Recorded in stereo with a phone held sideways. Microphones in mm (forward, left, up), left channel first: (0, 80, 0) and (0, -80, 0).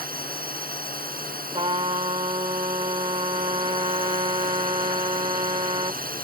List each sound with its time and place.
0.0 s a drone: 65° right (ahead or behind)
1.5 s a trumpet: 35° right (ahead or behind)